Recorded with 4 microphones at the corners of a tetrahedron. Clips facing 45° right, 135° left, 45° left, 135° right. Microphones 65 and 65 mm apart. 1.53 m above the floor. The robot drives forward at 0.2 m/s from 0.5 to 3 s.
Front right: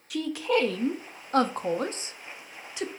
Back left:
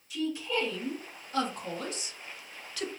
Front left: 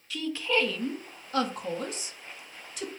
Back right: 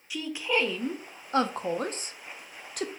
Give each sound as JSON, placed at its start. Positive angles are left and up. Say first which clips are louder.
{"t": 0.1, "sound": "a woman speaking", "louder": "front right 6 dB, front left 1 dB", "azimuth_deg": -60, "distance_m": 0.6}